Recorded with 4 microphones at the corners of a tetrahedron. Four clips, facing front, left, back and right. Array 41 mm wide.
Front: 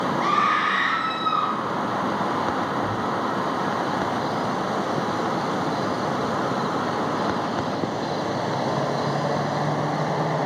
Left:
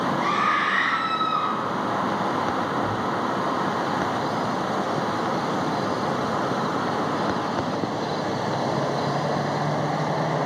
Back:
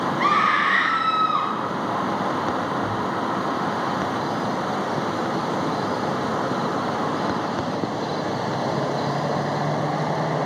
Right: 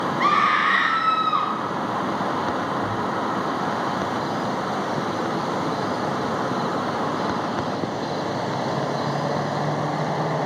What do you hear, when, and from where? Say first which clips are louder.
0.2 s a scream: right 6 dB, back 2 dB; 125° right, 2.5 m
2.8 s a thud: even, back 1 dB; 115° right, 6 m